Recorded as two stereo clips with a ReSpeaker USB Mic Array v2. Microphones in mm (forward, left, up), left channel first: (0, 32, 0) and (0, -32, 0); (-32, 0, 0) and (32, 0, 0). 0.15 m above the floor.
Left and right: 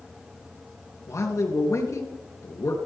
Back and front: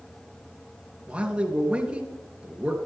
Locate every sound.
1.1 s a man speaking: 70° left, 3 m